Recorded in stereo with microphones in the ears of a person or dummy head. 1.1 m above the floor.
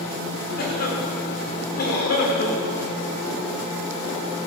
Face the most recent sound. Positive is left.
turn(degrees=55)  # may be behind; listen again after turning